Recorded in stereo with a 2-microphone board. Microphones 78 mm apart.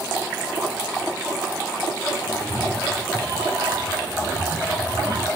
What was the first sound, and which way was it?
A cat meowing, 60° right (ahead or behind).